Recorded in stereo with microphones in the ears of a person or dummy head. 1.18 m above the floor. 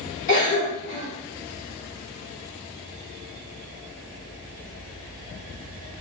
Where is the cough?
55° left (ahead or behind), 1.6 m.